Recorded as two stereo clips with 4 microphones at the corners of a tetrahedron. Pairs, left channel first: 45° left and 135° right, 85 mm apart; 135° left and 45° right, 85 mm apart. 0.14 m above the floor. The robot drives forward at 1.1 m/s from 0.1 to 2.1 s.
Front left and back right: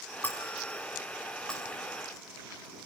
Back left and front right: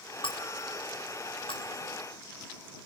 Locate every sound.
0.2 s breaking glass: 115° left, 4.5 m; by 1.8 s 130° left, 5.5 m